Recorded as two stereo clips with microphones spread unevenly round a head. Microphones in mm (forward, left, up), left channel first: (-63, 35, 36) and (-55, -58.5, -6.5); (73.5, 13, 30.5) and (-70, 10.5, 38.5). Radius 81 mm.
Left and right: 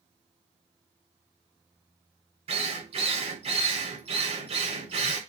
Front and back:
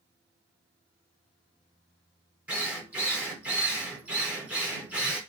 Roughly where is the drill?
Right.